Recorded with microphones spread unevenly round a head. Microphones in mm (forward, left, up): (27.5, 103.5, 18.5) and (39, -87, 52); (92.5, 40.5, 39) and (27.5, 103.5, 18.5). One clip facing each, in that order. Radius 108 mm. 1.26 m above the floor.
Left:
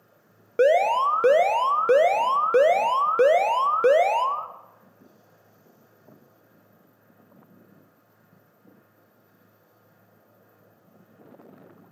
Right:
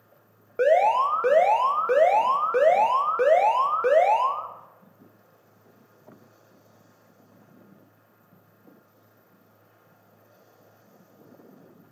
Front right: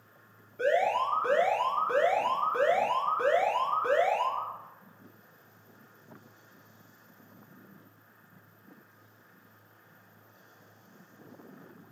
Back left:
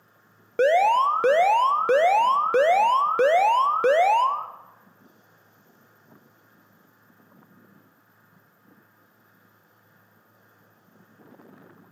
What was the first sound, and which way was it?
An alarm, 150° left.